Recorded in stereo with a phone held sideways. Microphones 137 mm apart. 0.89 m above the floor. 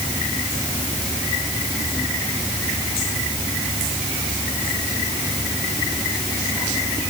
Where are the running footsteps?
I don't hear running footsteps.